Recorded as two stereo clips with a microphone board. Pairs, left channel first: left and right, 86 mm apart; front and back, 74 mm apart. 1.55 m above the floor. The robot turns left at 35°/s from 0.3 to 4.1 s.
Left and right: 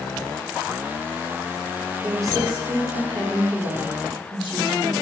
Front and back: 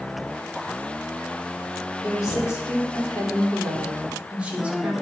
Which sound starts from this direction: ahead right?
A woman speaking, at 2.0 s.